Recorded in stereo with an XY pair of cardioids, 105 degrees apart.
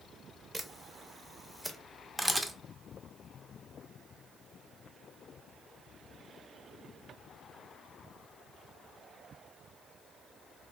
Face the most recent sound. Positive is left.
turn(degrees=-5)